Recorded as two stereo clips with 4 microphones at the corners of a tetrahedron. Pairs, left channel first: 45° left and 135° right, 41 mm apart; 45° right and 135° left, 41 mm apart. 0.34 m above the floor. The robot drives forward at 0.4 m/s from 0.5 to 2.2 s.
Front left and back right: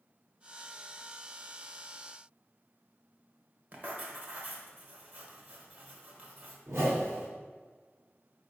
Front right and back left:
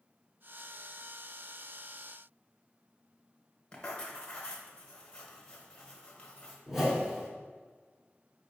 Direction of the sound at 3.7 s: 110° right.